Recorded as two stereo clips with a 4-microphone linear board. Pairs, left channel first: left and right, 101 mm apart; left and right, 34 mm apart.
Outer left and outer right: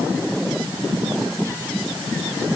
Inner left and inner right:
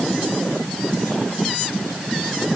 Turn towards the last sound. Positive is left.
No sound to turn to.